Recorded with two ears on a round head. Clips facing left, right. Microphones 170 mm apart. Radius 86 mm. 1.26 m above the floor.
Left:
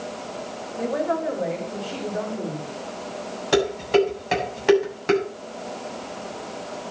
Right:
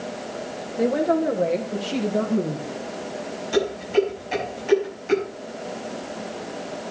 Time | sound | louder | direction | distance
0.8 | a woman speaking | right 4 dB | 35° right (ahead or behind) | 3 m
3.5 | dishes clattering | left 2 dB | 80° left | 7 m